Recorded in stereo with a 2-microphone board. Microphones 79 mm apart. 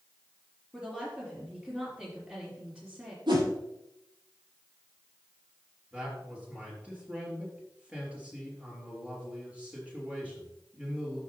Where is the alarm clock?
No alarm clock in this recording.